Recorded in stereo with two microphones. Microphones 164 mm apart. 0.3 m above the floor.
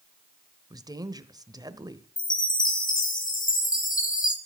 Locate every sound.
0.7 s a woman speaking: 20° right (ahead or behind), 1.0 m
2.2 s a chime: 55° left (ahead or behind), 2.5 m